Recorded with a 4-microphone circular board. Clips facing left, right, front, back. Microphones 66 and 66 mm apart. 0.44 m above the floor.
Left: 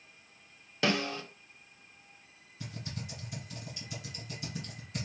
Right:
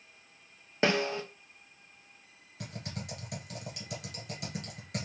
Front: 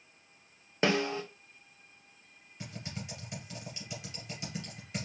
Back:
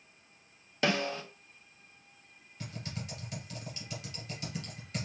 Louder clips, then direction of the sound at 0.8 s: Right 3 dB, front 2 dB; 45° right.